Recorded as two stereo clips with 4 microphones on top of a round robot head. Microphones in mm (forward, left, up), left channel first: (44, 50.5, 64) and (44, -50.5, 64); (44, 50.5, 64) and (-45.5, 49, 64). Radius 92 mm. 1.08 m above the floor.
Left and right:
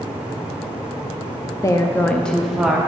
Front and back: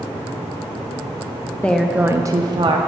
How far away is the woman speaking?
About 0.6 m.